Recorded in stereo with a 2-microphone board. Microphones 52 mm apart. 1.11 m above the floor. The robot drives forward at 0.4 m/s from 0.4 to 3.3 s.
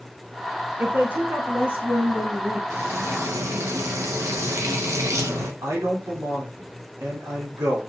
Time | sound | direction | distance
0.8 | a woman speaking | 40° right (ahead or behind) | 1.5 m
2.7 | frying | 65° right (ahead or behind) | 1.6 m
5.6 | a man speaking | 85° right | 3 m